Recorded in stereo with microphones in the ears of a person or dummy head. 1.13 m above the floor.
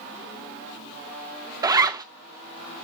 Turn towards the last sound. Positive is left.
turn(degrees=-20)  # may be behind; listen again after turning